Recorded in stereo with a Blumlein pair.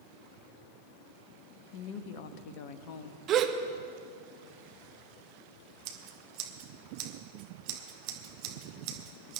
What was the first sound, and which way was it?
A woman speaking, 45° left.